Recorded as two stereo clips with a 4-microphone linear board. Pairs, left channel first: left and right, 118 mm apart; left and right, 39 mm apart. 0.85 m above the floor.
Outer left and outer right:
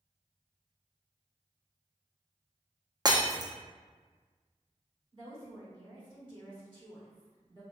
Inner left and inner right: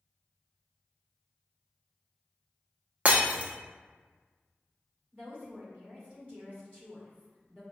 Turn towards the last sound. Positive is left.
turn(degrees=-40)  # may be behind; listen again after turning